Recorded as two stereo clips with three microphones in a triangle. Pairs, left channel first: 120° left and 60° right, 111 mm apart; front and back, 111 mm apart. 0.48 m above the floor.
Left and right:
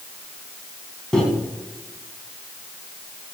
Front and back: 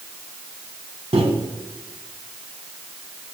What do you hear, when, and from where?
1.1 s a microwave: 155° right, 2.5 m